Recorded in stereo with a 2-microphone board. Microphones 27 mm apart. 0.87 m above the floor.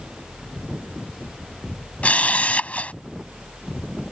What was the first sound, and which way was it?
A camera shutter, 55° left (ahead or behind).